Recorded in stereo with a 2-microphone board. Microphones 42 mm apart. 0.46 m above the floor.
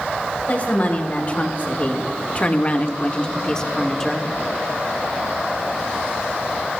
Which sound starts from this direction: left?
A woman speaking, at 0.5 s.